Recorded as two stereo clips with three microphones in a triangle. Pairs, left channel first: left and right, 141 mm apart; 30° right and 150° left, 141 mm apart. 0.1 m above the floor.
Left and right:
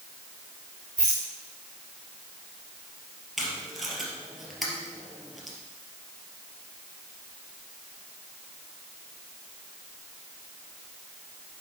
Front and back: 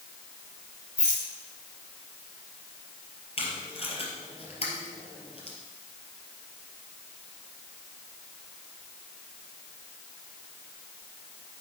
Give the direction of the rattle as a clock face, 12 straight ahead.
2 o'clock.